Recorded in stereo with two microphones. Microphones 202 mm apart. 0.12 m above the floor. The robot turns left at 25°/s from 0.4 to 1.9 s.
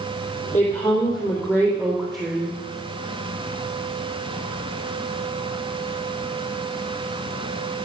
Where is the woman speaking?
15° left, 3.5 m; by 2.6 s 20° right, 3.5 m.